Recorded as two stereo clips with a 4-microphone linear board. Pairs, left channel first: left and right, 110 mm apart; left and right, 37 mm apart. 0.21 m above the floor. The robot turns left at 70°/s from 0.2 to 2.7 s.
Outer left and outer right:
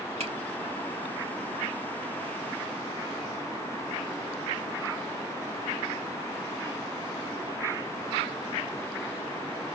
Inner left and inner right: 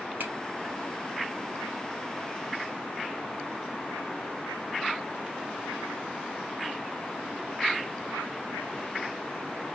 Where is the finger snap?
60° right (ahead or behind), 3.5 m; by 0.3 s 50° right (ahead or behind), 3.5 m.